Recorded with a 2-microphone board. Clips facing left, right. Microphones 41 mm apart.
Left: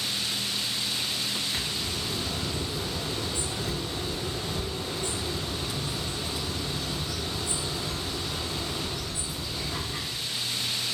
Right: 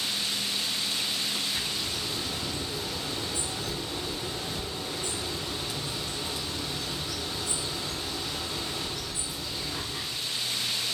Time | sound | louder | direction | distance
1.5 | a bird | left 1 dB | 60° left (ahead or behind) | 1.2 m